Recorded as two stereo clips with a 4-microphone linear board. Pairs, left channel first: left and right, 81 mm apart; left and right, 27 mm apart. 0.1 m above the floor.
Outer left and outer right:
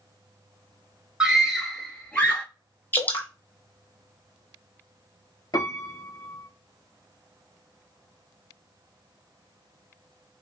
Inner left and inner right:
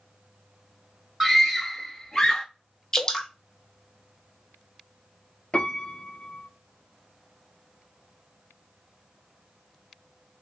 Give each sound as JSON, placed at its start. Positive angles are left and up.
{"t": 1.2, "sound": "a scream", "side_deg": -10, "distance_m": 1.3}
{"t": 2.9, "sound": "dripping", "side_deg": 25, "distance_m": 1.1}
{"t": 5.5, "sound": "a piano", "side_deg": 50, "distance_m": 0.7}